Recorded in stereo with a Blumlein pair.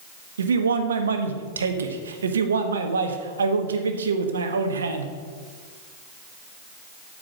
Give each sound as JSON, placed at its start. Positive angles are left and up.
{"t": 0.4, "sound": "a man speaking", "azimuth_deg": -70, "distance_m": 1.3}